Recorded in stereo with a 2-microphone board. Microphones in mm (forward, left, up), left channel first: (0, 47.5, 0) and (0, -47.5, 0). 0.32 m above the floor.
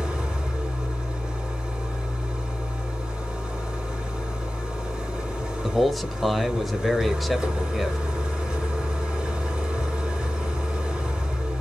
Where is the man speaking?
Centre (ahead or behind), 0.9 m.